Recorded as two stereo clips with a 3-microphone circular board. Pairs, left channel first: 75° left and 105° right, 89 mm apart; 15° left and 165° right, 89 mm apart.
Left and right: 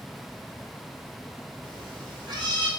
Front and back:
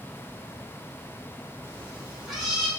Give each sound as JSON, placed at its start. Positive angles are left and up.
{"t": 1.6, "sound": "a cat meowing", "azimuth_deg": -110, "distance_m": 1.1}